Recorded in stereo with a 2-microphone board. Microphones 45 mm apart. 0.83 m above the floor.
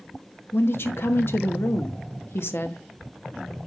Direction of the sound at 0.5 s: 60° left (ahead or behind).